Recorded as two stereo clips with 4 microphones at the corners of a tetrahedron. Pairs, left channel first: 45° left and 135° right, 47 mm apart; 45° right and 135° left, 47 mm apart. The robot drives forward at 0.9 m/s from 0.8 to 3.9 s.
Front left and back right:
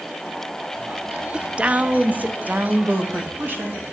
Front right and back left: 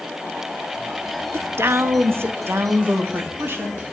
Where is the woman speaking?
155° left, 0.5 m; by 3.8 s 175° left, 2.5 m.